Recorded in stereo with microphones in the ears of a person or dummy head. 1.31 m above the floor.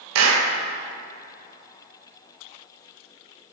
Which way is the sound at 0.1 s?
70° right (ahead or behind).